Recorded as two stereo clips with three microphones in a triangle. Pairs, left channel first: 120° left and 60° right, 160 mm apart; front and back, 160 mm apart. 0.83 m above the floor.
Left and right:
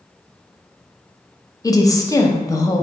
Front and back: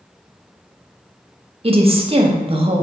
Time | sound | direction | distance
1.6 | a woman speaking | 175° left | 0.6 m